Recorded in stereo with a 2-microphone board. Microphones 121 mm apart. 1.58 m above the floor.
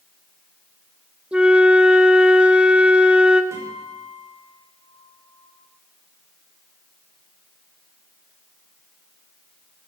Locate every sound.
1.3 s a flute: 10° right (ahead or behind), 0.8 m
3.5 s a guitar: 25° right (ahead or behind), 5.5 m